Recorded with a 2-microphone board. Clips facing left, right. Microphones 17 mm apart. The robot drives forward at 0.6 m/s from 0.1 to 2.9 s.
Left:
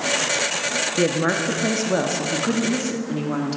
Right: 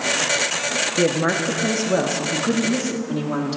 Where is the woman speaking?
Centre (ahead or behind), 0.7 m.